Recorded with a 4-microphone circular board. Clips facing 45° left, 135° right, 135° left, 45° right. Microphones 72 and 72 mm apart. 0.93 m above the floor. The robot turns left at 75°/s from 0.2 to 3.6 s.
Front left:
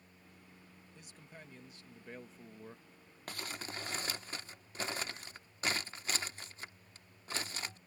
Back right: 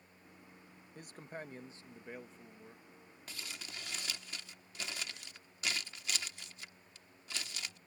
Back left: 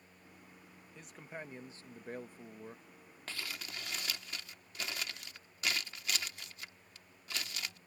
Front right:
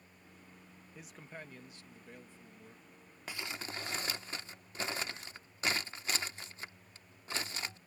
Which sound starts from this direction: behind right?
A man speaking, at 0.9 s.